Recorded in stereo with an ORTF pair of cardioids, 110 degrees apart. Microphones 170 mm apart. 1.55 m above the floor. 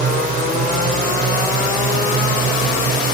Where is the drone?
50° right.